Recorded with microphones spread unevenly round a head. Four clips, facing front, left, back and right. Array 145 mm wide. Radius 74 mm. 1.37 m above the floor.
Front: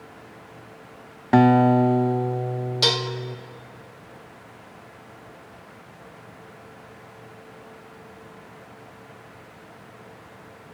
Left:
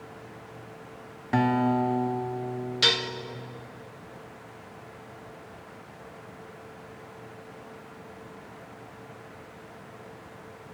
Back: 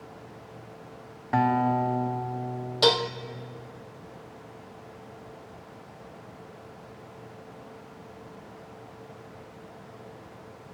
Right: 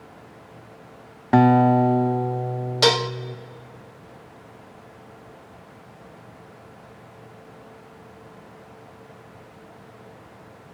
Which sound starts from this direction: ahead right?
A guitar, at 1.3 s.